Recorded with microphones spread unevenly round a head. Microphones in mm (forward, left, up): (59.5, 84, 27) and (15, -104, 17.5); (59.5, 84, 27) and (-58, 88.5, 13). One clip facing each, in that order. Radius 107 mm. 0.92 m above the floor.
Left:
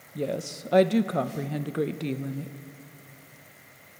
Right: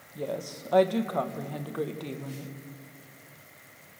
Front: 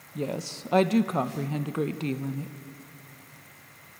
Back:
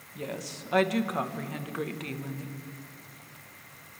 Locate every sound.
0.1 s a woman speaking: 35° left, 0.5 m